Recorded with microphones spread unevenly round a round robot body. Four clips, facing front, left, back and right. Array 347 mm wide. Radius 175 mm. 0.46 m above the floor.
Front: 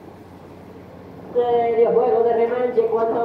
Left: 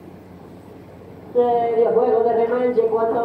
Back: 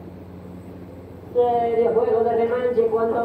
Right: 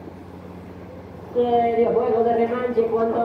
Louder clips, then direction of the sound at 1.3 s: Left 2 dB, front 2 dB; 65° left.